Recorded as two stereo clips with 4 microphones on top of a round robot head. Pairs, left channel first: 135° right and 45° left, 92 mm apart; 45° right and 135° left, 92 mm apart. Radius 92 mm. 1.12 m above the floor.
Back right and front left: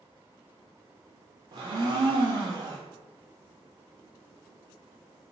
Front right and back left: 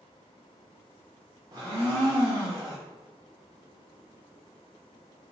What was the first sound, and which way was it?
A blender, 80° left.